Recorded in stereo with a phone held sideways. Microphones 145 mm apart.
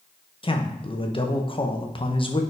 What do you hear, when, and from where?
0.4 s a man speaking: 35° left (ahead or behind), 0.6 m